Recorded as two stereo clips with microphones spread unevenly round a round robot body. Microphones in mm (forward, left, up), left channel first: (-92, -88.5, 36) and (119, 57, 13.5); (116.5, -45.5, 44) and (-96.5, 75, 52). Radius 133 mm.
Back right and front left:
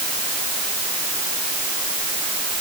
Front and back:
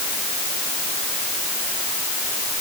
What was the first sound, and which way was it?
Only background noise.